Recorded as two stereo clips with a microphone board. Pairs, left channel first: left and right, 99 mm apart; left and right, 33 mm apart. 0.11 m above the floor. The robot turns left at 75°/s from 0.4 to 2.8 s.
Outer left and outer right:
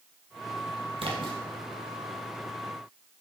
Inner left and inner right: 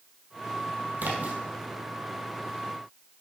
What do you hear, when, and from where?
1.0 s a splash: 65° right (ahead or behind), 2 m; by 1.4 s 50° right (ahead or behind), 2 m